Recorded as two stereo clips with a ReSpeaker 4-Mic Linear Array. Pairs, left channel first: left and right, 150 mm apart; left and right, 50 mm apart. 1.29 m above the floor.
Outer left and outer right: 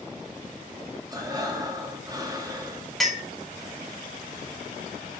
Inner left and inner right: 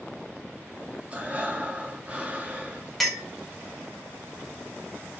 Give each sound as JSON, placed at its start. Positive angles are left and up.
{"t": 1.1, "sound": "breathing", "side_deg": -25, "distance_m": 0.5}
{"t": 3.0, "sound": "a clink", "side_deg": 0, "distance_m": 0.5}